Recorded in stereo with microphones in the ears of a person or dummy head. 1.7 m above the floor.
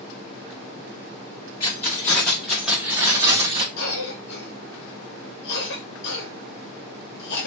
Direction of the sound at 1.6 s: 25° left (ahead or behind).